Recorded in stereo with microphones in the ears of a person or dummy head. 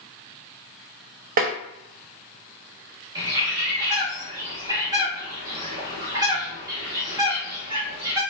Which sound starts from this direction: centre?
A bird, at 3.1 s.